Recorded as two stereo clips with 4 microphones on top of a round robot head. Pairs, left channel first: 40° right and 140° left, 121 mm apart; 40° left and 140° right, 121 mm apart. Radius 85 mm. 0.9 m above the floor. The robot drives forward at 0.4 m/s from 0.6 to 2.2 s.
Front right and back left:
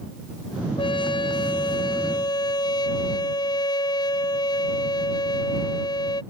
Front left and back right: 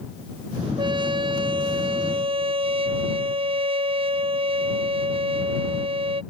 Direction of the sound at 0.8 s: 90° right.